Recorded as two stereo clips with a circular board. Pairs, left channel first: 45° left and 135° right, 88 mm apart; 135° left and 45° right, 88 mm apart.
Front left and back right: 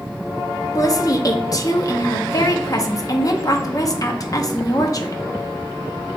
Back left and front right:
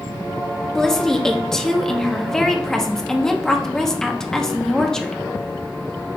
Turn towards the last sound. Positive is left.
turn(degrees=55)